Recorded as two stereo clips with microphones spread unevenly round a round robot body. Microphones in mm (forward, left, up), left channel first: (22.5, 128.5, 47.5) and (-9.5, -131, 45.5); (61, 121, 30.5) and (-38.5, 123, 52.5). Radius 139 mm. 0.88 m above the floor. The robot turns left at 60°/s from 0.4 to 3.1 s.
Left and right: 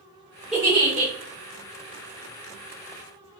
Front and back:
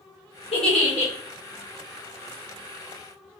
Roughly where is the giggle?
Ahead.